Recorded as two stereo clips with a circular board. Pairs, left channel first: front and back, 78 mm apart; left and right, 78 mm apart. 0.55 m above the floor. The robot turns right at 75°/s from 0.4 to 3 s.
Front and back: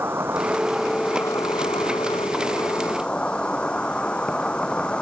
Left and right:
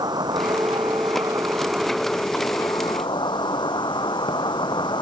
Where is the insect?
120° right; by 5.0 s 75° left.